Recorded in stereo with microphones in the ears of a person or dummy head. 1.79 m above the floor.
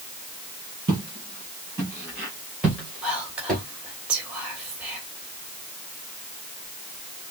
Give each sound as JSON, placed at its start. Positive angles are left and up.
{"t": 0.9, "sound": "footsteps", "side_deg": -20, "distance_m": 3.0}
{"t": 3.0, "sound": "whispering", "side_deg": -5, "distance_m": 3.0}